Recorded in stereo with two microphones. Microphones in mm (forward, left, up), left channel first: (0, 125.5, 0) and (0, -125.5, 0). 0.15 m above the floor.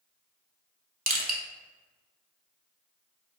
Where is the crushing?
35° right (ahead or behind), 0.8 m.